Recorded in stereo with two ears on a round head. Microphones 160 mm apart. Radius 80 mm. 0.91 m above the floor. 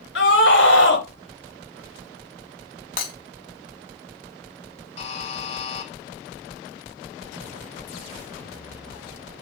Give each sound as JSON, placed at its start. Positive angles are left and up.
{"t": 0.1, "sound": "a scream", "side_deg": 70, "distance_m": 4.0}
{"t": 3.0, "sound": "breaking glass", "side_deg": 50, "distance_m": 3.0}
{"t": 5.0, "sound": "a buzzer", "side_deg": 35, "distance_m": 2.0}